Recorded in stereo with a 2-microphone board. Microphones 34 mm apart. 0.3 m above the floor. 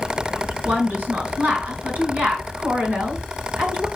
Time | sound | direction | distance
0.7 | a woman speaking | 60° right (ahead or behind) | 3.5 m